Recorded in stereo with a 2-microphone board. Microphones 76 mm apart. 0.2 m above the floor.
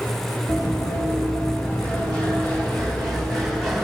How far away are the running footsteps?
About 7.5 m.